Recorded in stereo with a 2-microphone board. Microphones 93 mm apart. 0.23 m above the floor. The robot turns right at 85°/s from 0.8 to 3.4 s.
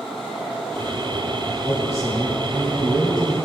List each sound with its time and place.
1.6 s a man speaking: 35° left, 1.7 m; by 3.3 s 175° right, 1.7 m